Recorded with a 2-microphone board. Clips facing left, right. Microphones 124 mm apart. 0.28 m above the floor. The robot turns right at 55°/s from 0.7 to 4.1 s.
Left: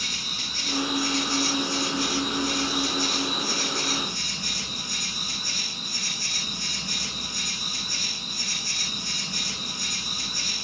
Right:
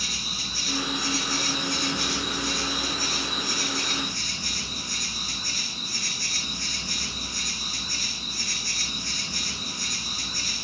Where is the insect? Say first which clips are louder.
Right 1 dB; 170° right, 6.5 m; by 10.7 s 15° left, 6.5 m.